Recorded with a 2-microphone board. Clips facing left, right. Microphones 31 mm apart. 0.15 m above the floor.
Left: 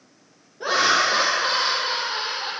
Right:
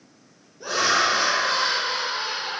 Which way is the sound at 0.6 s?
35° left (ahead or behind).